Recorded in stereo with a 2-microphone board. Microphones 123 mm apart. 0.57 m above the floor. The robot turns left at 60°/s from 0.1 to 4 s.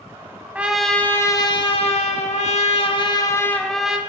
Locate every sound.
0.6 s a trumpet: 165° right, 0.6 m; by 4.0 s 10° right, 0.6 m